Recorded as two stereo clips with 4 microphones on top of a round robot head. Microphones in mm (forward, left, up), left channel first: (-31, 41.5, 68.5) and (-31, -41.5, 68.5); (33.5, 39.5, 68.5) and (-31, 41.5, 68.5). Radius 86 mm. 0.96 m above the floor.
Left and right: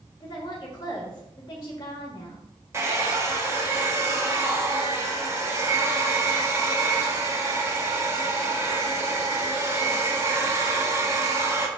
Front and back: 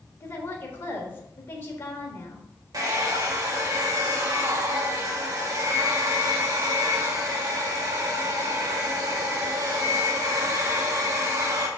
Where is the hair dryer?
145° right, 1.5 m.